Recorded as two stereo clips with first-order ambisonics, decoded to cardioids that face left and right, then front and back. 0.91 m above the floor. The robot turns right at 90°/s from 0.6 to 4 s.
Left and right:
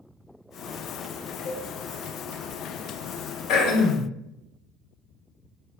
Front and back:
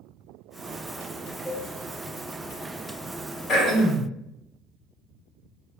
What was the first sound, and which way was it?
A cowbell, 100° left.